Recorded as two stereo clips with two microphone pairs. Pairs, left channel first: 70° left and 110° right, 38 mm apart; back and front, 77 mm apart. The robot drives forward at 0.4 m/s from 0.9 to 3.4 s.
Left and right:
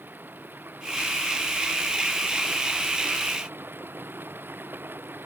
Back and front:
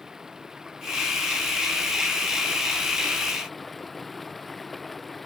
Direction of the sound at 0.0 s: 85° right.